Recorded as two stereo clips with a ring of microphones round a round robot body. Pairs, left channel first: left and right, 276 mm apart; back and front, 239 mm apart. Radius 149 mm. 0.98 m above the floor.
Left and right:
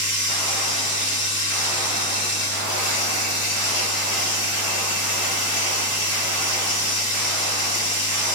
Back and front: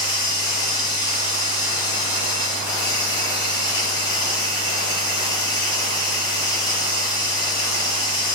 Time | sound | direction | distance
0.0 | running water | 110° left | 1.4 m